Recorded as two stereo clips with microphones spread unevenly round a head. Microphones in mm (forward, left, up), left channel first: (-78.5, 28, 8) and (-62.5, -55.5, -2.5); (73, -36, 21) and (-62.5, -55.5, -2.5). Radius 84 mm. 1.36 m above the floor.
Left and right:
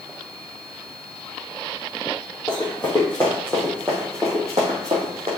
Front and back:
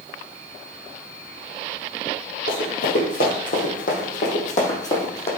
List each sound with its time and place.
2.5 s running footsteps: 40° left, 3 m; by 5.3 s 25° right, 3.5 m